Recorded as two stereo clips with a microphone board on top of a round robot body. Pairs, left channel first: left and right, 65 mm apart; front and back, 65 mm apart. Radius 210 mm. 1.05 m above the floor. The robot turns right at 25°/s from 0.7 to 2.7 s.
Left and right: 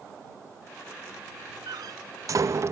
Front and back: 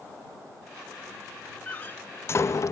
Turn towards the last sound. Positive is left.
turn(degrees=-40)